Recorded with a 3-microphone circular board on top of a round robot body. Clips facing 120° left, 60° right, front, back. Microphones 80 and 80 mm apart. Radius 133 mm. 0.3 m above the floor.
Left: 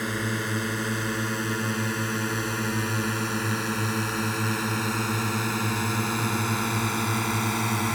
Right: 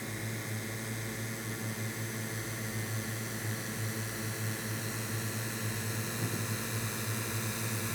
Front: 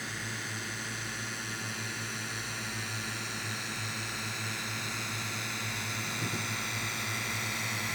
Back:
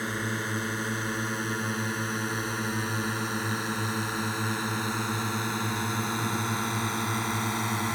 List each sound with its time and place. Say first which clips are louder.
0.0 s a drone: left 12 dB, back 8 dB; 135° left